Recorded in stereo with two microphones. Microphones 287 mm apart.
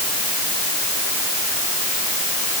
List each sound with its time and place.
Only background noise.